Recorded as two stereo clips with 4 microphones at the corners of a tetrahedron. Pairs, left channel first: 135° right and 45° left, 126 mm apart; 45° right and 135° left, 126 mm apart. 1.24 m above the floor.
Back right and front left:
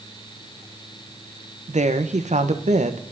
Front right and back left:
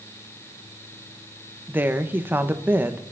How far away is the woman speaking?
About 1.3 m.